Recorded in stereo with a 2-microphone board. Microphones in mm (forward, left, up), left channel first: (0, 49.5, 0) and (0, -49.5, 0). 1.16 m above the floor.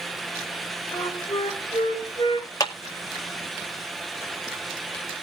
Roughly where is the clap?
Left.